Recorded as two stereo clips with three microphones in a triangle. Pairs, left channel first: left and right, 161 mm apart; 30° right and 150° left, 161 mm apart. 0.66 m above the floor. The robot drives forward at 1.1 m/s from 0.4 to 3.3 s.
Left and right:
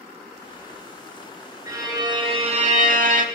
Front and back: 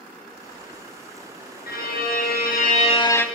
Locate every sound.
1.7 s a violin: 20° right, 1.7 m; by 3.2 s 110° right, 0.7 m